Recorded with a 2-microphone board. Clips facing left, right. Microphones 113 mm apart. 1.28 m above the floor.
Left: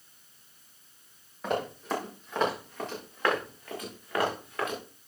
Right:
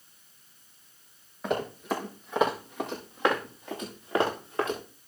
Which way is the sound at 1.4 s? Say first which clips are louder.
Right 1 dB; centre (ahead or behind).